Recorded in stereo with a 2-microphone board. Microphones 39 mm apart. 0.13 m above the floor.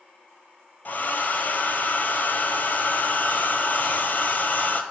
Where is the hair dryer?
55° left (ahead or behind), 0.5 m.